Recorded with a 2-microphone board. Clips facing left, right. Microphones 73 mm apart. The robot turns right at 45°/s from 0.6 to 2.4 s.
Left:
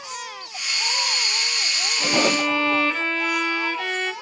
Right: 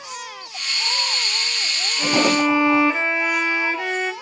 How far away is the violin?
About 0.5 m.